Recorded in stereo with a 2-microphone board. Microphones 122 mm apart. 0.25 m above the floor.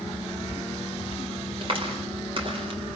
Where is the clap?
45° right (ahead or behind), 5 m.